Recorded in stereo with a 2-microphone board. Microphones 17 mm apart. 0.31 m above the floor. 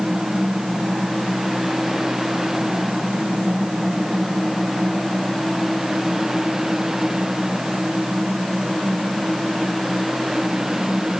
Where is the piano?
No piano in this recording.